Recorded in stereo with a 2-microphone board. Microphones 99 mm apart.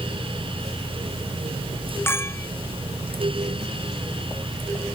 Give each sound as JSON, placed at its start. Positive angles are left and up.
{"t": 2.1, "sound": "a clink", "side_deg": 25}